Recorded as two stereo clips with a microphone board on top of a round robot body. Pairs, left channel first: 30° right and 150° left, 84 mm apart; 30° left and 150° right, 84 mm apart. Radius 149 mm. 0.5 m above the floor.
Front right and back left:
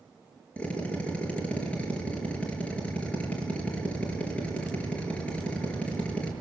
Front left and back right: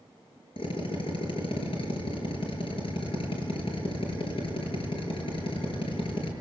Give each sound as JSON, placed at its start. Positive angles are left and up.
{"t": 0.6, "sound": "a drill", "azimuth_deg": 45, "distance_m": 5.0}